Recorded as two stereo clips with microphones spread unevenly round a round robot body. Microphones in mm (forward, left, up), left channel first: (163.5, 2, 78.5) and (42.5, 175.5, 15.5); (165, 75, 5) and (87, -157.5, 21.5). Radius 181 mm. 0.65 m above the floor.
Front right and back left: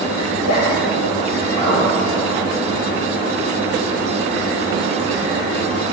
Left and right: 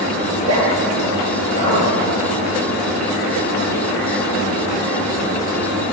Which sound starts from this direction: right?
A zipper, at 0.3 s.